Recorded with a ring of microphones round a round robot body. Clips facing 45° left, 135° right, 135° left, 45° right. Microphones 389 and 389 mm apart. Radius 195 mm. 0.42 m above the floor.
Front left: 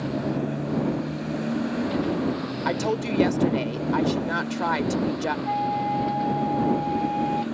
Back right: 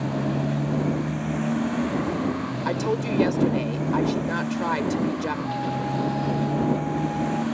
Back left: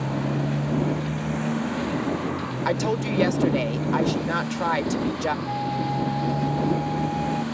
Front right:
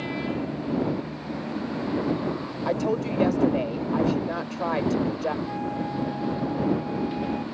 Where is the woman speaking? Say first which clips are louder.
Even, even; 125° left.